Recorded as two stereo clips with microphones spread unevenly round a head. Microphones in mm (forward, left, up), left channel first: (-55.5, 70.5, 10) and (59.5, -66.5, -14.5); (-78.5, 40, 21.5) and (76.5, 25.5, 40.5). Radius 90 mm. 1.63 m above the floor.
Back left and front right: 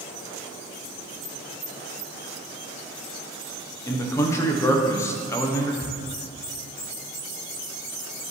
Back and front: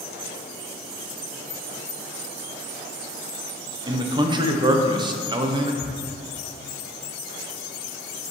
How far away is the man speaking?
About 0.8 m.